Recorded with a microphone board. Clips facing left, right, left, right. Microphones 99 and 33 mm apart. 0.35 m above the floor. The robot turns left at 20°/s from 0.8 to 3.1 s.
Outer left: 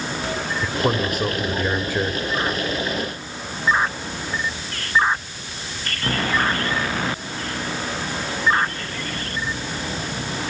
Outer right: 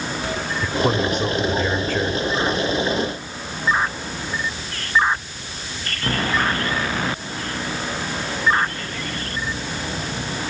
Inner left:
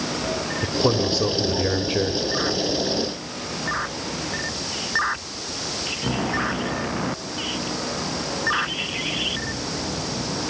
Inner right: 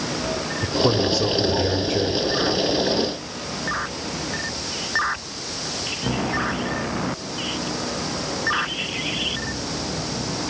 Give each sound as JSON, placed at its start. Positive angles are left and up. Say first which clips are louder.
{"t": 0.6, "sound": "a man speaking", "louder": "outer right 2 dB, inner right 2 dB", "side_deg": 0, "distance_m": 1.5}